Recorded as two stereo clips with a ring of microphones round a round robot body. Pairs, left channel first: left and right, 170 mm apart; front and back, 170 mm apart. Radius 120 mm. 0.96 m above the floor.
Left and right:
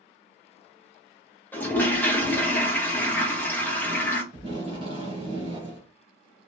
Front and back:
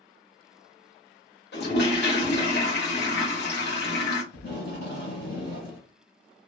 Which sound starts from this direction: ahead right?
Tape being pulled, at 4.3 s.